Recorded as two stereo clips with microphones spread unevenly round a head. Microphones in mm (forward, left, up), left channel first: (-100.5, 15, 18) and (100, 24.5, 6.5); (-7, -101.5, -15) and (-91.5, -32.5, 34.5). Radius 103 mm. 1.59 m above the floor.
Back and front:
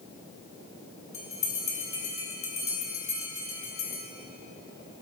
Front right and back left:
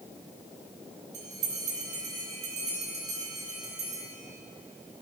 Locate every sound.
1.1 s a bell: 125° left, 3.5 m